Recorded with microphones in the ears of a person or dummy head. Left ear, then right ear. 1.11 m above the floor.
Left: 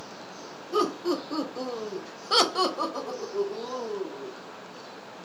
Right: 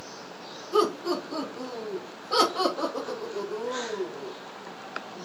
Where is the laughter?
10° left (ahead or behind), 1.2 m; by 4.3 s 35° left (ahead or behind), 1.6 m.